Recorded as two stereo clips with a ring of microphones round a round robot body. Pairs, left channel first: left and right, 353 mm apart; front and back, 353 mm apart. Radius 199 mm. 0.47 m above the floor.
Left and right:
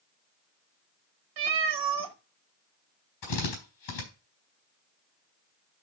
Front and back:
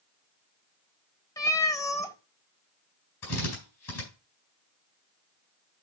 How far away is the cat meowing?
About 1.4 m.